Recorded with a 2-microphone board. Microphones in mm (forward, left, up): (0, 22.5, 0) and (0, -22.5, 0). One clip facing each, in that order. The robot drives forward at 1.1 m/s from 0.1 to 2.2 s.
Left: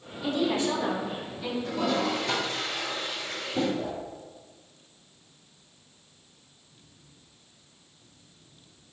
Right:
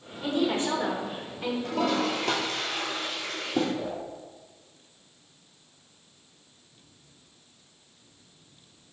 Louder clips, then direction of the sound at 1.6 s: Even; 55° right (ahead or behind).